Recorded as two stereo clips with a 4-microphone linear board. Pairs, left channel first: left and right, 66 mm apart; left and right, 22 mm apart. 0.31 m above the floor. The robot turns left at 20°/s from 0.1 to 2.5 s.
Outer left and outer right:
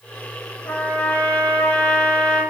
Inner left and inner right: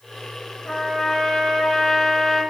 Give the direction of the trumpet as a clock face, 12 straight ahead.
10 o'clock.